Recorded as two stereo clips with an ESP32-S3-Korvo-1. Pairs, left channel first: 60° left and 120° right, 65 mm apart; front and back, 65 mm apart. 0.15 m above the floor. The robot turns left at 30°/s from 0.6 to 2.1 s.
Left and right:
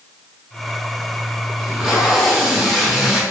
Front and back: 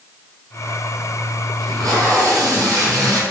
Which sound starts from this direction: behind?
Tape being pulled, at 1.6 s.